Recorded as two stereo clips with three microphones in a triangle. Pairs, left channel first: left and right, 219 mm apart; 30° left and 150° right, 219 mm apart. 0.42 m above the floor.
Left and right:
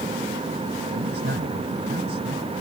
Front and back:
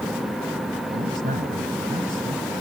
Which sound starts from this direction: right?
A man speaking, at 0.9 s.